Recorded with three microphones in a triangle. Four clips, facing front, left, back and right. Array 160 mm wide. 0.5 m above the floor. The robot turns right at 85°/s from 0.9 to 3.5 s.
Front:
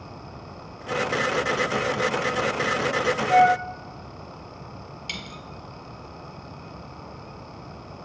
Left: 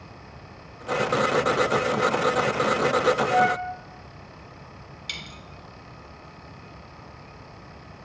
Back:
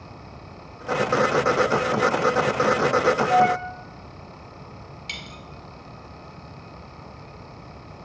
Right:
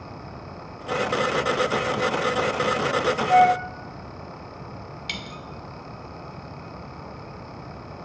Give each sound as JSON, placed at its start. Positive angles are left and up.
{"t": 3.3, "sound": "a flute", "azimuth_deg": -120, "distance_m": 0.5}
{"t": 5.1, "sound": "a dropped coin", "azimuth_deg": -85, "distance_m": 0.9}